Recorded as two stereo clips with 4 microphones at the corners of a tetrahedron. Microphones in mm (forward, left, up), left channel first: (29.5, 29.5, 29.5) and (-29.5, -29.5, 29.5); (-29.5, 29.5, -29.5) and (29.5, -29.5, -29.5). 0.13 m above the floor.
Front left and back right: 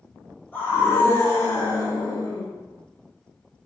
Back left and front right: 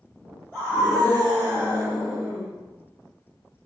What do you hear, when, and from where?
0.5 s a scream: 85° left, 1.7 m; by 2.5 s 70° left, 3 m